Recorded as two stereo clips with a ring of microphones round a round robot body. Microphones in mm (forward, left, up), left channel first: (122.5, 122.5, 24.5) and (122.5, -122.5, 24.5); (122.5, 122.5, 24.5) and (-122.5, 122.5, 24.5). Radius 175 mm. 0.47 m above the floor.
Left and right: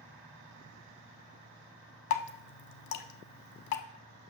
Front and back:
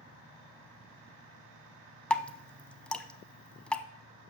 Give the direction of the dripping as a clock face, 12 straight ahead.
9 o'clock.